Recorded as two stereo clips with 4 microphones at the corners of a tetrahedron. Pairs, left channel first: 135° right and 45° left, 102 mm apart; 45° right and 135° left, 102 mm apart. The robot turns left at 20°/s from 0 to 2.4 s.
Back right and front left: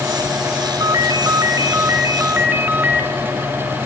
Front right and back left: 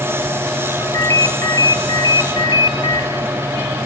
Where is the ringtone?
10° left, 1.1 m; by 3.1 s 25° right, 1.1 m.